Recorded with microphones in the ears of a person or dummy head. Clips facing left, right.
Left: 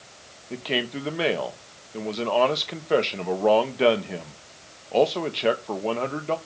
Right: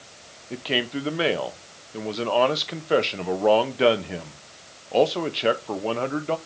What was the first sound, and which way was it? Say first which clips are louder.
A man speaking: right 1 dB; centre (ahead or behind).